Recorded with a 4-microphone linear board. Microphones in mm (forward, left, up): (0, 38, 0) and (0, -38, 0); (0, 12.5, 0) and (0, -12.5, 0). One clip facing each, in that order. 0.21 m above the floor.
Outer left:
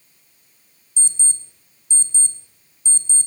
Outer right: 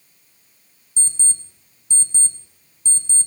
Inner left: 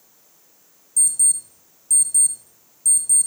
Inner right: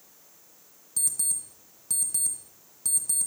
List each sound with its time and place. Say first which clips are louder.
1.0 s an alarm clock: even, inner left 9 dB; 50° right (ahead or behind), 1.1 m